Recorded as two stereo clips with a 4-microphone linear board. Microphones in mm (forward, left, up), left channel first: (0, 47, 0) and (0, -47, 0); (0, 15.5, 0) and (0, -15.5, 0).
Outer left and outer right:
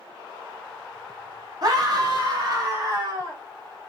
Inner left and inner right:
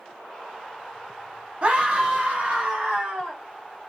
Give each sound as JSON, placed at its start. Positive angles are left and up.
{"t": 1.6, "sound": "a scream", "side_deg": -45, "distance_m": 1.6}